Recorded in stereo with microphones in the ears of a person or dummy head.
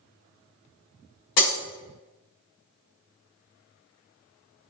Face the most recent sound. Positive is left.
turn(degrees=60)  # may be behind; listen again after turning